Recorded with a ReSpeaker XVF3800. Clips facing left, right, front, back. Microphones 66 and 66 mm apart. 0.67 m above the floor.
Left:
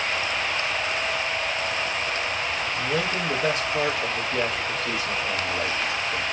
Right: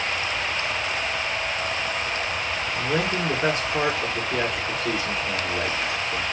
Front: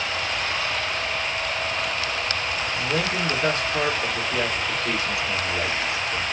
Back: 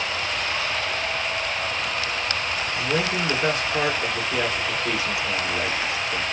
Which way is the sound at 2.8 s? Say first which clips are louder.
Right 3 dB, back 2 dB; 105° right.